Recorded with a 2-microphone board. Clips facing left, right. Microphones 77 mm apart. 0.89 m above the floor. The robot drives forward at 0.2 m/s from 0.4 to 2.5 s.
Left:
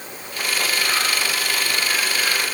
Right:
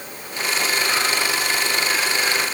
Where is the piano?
No piano in this recording.